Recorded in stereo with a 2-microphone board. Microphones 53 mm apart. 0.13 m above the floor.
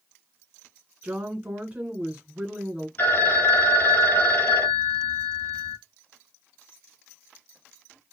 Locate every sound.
1.0 s a woman speaking: 20° right (ahead or behind), 1.3 m
3.0 s a phone ringing: 40° left (ahead or behind), 1.8 m